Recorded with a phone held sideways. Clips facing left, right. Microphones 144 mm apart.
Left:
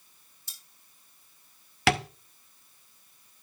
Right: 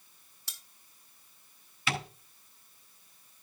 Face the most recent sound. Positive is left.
turn(degrees=75)  # may be behind; listen again after turning